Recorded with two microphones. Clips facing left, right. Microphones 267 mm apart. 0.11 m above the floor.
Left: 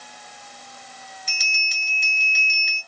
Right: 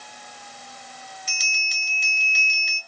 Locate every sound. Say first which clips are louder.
1.3 s a bell: even; centre (ahead or behind), 1.2 m